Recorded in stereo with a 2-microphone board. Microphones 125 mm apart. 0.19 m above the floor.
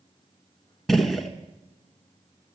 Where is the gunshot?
Centre (ahead or behind), 1.2 m.